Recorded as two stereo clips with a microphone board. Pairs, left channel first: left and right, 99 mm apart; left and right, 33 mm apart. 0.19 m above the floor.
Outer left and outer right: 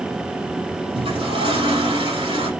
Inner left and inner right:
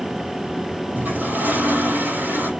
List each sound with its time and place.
0.9 s a toilet flushing: 65° right (ahead or behind), 8 m